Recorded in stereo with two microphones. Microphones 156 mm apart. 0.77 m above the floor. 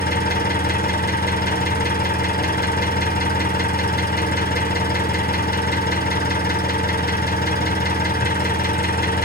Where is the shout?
I don't hear a shout.